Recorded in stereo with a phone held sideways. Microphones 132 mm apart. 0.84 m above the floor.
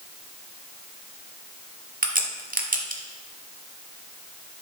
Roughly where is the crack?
Right.